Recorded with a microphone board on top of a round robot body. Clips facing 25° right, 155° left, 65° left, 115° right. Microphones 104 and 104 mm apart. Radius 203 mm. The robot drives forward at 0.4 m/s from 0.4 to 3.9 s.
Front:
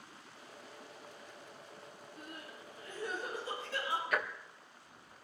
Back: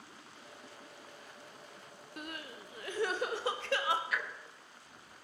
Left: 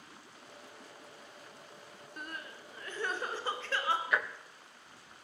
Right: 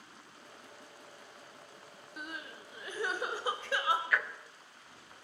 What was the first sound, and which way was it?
Crying, 165° left.